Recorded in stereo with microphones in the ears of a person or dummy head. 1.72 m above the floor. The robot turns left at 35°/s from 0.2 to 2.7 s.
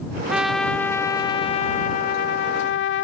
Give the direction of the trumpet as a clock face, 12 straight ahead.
6 o'clock.